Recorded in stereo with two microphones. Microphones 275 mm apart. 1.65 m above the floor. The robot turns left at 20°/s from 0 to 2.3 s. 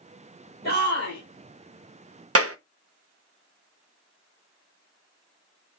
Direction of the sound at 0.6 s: 65° left (ahead or behind).